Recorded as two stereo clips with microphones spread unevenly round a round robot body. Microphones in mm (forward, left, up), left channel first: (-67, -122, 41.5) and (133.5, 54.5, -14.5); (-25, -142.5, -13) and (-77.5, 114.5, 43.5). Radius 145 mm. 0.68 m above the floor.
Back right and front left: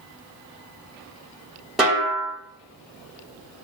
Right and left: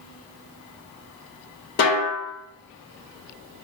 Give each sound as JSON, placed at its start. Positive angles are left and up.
{"t": 1.8, "sound": "a snare drum", "azimuth_deg": -40, "distance_m": 2.0}